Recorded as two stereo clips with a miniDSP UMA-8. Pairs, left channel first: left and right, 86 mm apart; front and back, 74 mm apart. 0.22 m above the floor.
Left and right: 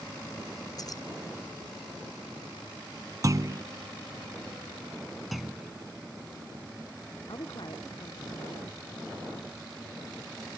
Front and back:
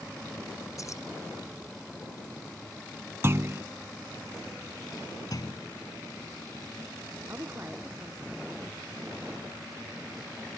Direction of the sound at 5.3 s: Straight ahead.